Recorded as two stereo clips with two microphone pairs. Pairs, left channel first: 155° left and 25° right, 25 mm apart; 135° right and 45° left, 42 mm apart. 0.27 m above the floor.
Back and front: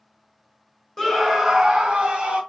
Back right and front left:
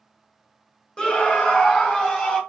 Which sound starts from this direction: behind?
A scream, at 1.0 s.